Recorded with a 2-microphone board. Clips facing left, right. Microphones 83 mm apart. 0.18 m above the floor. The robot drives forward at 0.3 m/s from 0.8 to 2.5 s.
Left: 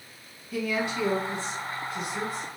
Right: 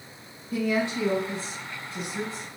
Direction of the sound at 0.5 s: 35° right (ahead or behind).